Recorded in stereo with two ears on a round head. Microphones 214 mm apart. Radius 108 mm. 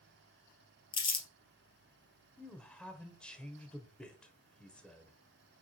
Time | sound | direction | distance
0.9 | crumpling | 20° left (ahead or behind) | 1.9 m
2.4 | a man speaking | 5° left (ahead or behind) | 1.2 m